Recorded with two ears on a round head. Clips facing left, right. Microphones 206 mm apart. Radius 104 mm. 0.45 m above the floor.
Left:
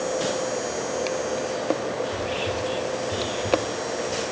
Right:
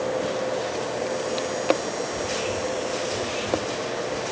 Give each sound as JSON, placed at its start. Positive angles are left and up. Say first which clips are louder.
{"t": 2.0, "sound": "whispering", "louder": "even", "side_deg": 50, "distance_m": 10.0}